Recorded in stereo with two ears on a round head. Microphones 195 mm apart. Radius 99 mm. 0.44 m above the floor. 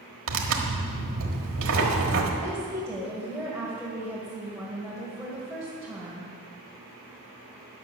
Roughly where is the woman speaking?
Centre.